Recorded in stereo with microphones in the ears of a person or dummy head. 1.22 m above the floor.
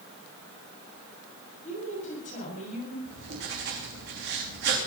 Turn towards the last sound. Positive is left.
turn(degrees=-60)  # may be behind; listen again after turning